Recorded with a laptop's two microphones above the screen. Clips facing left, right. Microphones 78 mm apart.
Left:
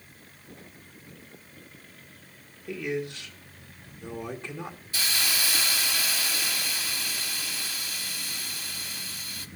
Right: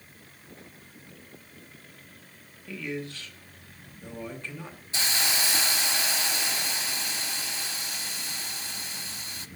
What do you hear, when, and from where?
2.7 s a man speaking: 20° left (ahead or behind), 1.7 m
4.9 s a hiss: 25° right (ahead or behind), 0.9 m